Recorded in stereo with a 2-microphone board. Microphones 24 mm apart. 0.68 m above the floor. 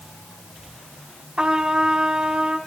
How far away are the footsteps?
I don't hear footsteps.